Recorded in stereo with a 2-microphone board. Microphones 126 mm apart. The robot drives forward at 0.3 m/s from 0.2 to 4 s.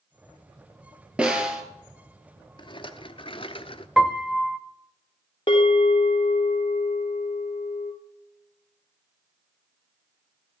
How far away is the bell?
About 3.5 m.